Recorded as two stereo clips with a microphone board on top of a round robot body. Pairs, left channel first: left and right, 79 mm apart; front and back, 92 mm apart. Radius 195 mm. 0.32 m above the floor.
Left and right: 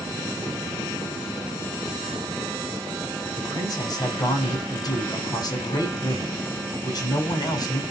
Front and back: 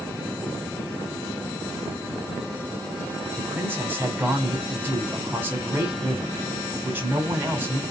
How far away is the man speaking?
About 2.5 m.